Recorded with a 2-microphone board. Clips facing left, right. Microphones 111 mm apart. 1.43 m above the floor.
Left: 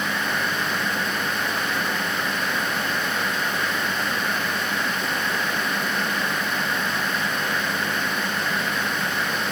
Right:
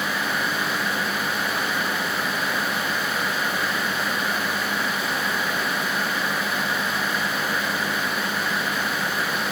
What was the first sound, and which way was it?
Only background noise.